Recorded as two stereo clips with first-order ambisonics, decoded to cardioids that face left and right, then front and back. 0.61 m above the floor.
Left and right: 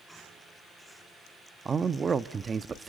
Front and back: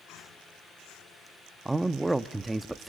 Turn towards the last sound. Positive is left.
turn(degrees=-110)